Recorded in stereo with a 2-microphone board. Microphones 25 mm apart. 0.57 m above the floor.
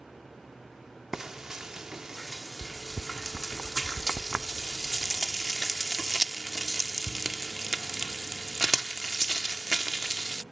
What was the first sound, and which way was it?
Frying, 20° right (ahead or behind).